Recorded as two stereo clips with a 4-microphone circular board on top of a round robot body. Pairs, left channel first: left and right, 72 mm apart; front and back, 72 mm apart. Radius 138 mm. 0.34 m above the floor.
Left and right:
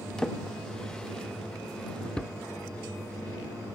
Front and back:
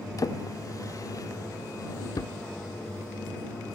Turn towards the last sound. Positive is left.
turn(degrees=15)